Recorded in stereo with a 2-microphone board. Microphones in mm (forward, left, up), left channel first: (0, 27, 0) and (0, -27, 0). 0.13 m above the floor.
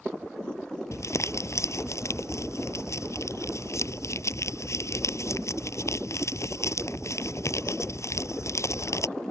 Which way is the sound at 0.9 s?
60° left (ahead or behind).